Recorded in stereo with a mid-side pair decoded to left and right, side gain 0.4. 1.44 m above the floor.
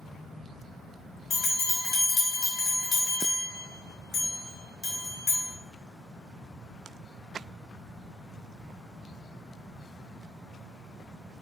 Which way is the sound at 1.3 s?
65° left.